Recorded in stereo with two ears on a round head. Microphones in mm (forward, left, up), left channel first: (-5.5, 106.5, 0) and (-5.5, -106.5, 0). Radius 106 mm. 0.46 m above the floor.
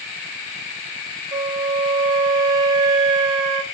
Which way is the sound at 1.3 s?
20° right (ahead or behind).